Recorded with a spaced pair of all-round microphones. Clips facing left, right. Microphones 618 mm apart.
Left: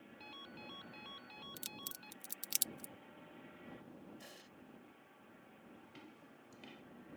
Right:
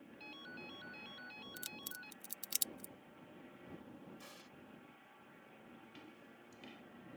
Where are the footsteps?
Centre (ahead or behind).